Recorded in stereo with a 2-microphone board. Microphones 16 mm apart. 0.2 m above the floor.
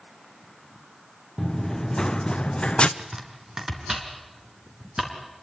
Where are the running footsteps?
20° left (ahead or behind), 1.0 m; by 2.9 s 75° left (ahead or behind), 0.9 m.